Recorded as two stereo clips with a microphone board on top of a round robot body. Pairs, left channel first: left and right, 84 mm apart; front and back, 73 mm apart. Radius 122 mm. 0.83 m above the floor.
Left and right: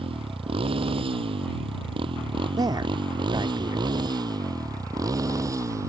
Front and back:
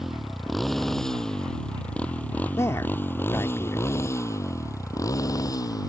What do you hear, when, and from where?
0.0 s a motorcycle: 90° right; by 5.9 s 35° right
2.6 s a man speaking: 50° right